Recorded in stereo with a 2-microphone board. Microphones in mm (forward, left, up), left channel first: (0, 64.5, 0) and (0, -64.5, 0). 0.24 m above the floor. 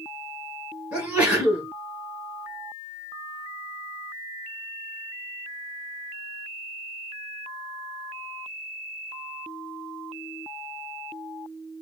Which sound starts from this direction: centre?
A sneeze, at 0.9 s.